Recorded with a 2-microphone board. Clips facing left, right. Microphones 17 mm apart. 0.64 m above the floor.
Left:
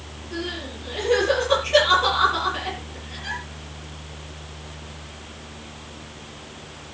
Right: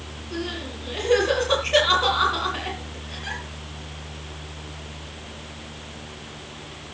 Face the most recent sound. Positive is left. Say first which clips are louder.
# even
turn(degrees=-10)  # may be behind; listen again after turning